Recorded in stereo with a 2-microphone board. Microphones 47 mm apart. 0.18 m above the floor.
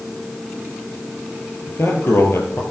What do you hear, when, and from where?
1.7 s a man speaking: 50° left (ahead or behind), 3.5 m